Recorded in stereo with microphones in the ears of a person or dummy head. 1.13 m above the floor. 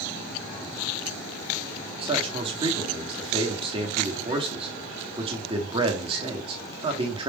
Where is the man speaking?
20° right (ahead or behind), 1.1 m.